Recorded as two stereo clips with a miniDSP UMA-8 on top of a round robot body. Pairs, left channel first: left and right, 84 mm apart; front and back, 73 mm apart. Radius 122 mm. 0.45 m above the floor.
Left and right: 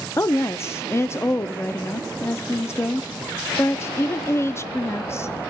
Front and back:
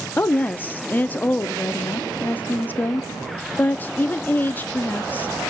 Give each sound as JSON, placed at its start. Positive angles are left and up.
{"t": 0.2, "sound": "a woman speaking", "azimuth_deg": 50, "distance_m": 0.9}